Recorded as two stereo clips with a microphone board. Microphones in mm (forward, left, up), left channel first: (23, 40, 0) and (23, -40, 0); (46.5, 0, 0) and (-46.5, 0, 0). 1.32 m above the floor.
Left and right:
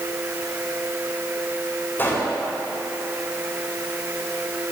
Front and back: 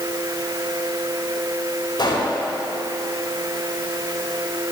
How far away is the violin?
I don't hear a violin.